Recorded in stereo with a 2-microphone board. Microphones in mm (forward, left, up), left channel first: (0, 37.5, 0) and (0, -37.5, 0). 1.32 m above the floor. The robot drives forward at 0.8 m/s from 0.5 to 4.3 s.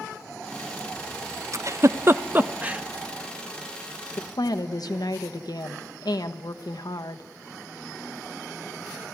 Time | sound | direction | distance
1.5 | a giggle | 45° right (ahead or behind) | 0.5 m
4.2 | a woman speaking | 70° left (ahead or behind) | 1.2 m